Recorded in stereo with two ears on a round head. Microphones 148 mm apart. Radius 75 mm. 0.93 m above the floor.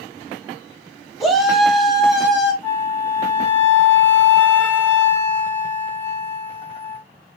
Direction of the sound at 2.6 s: 15° left (ahead or behind).